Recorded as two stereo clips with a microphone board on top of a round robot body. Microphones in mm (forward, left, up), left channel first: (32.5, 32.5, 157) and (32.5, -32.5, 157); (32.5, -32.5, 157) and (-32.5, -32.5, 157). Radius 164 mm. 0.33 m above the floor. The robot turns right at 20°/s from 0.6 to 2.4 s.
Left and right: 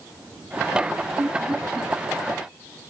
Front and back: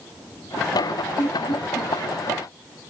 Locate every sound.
1.2 s laughter: 10° right, 6 m; by 1.9 s 5° left, 6 m